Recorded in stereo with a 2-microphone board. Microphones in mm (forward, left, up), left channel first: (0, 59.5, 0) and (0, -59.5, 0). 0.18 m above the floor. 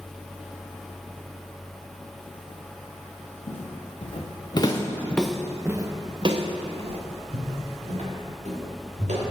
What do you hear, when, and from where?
3.5 s footsteps: 60° left (ahead or behind), 1.6 m; by 9.2 s 75° right (ahead or behind), 3 m